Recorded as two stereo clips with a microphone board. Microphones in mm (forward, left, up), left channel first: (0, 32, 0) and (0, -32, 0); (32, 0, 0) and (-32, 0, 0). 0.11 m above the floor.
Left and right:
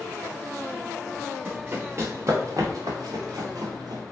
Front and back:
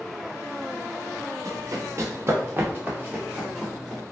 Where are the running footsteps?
150° right, 1.2 m; by 4.0 s 90° right, 1.4 m.